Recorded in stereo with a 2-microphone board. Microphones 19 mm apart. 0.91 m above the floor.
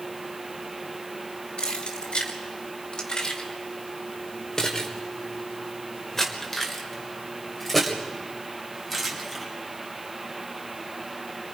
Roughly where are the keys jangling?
Left.